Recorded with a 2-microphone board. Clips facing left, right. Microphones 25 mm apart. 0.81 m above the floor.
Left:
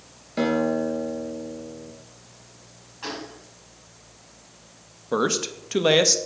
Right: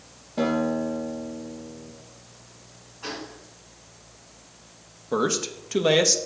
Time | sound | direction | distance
0.4 | a guitar | 70° left (ahead or behind) | 2.5 m
3.0 | a gunshot | 60° left (ahead or behind) | 3 m
5.1 | a man speaking | 20° left (ahead or behind) | 0.7 m